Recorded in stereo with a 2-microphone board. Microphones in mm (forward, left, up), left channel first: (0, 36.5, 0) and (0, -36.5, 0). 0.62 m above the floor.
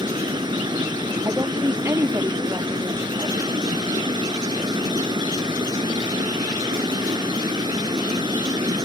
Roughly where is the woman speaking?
Right.